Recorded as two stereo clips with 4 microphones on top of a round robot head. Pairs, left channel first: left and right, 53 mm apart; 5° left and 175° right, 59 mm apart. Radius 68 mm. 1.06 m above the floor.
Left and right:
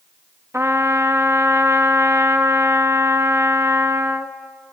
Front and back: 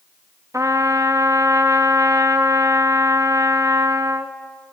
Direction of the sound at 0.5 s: 140° right.